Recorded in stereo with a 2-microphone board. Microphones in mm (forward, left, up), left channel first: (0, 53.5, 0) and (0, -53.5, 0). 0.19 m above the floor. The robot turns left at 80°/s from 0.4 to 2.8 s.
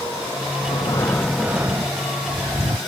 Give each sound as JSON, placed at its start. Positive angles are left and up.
{"t": 0.6, "sound": "breathing", "azimuth_deg": 65}